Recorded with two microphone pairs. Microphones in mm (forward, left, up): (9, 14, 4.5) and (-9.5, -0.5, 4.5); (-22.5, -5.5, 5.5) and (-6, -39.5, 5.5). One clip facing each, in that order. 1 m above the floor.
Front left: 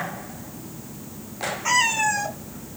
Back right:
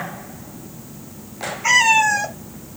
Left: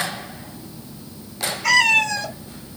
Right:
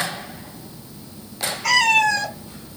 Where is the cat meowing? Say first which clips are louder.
Back right 7 dB, even; 150° right, 1.6 m.